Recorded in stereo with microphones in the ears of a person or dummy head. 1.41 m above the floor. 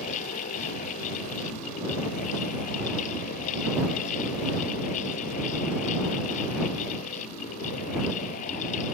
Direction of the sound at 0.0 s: 40° left (ahead or behind).